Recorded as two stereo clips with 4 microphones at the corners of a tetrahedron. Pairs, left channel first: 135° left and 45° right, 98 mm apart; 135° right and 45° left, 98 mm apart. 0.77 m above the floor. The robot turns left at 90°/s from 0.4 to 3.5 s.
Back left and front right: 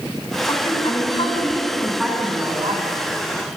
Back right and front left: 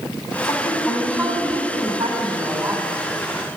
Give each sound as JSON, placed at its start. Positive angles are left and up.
{"t": 0.4, "sound": "a woman speaking", "azimuth_deg": -175, "distance_m": 3.0}